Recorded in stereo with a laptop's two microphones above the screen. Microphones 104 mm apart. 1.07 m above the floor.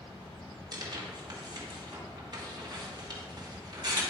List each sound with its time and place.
0.7 s tearing paper: 40° right (ahead or behind), 1.4 m